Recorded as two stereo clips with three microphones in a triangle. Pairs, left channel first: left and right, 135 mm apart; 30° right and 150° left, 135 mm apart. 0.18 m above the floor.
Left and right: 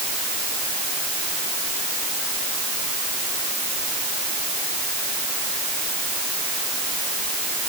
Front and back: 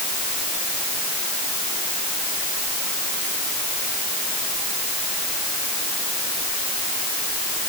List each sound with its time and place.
Only background noise.